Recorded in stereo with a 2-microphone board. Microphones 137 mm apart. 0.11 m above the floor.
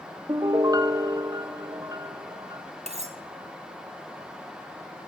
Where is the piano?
30° right (ahead or behind), 0.9 m.